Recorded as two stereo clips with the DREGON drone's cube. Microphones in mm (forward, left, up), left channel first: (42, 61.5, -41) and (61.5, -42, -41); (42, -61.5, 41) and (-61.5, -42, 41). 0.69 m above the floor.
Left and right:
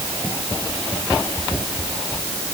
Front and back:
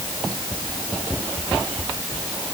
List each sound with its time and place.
Only background noise.